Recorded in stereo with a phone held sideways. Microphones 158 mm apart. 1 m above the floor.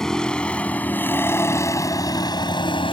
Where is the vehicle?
5° left (ahead or behind); by 2.9 s 35° left (ahead or behind).